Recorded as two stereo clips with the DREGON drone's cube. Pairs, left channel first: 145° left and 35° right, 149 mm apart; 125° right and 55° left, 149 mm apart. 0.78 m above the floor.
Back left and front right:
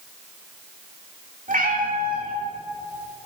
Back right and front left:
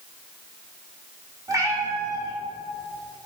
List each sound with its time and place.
1.5 s a cat meowing: 10° right, 1.3 m